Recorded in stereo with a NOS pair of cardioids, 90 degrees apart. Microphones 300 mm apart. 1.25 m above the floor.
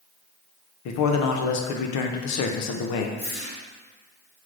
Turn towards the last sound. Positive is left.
turn(degrees=35)